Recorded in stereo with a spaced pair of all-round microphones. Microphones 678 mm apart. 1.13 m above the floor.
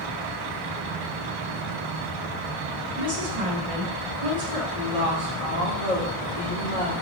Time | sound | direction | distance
3.0 | a woman speaking | 55° right (ahead or behind) | 1.8 m
4.8 | a woman speaking | 55° right (ahead or behind) | 3.5 m